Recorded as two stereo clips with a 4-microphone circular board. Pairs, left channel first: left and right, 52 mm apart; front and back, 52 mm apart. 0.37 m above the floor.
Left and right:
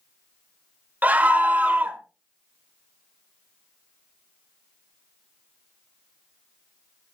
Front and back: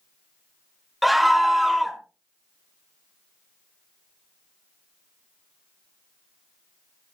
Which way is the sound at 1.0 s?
90° right.